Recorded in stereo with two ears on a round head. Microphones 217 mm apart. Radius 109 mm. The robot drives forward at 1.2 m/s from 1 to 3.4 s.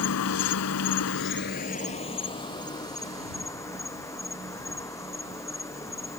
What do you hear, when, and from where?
0.0 s an insect: 70° left (ahead or behind); by 6.2 s 15° left (ahead or behind)